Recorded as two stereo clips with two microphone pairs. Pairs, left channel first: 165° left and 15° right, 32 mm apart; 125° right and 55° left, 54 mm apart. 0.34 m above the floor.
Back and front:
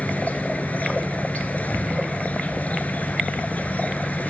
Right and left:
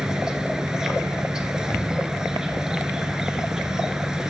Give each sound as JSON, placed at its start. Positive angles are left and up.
{"t": 0.0, "sound": "an insect", "azimuth_deg": 135, "distance_m": 0.7}